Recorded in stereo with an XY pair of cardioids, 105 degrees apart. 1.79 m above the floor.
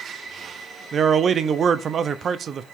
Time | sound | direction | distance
0.9 | a man speaking | 50° right | 0.7 m